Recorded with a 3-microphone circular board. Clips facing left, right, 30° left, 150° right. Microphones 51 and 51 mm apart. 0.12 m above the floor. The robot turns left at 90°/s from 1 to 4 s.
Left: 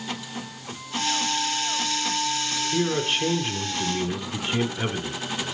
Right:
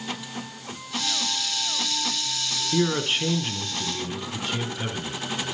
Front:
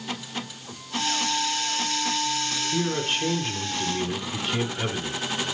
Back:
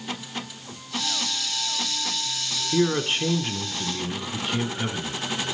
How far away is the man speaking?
About 1.3 m.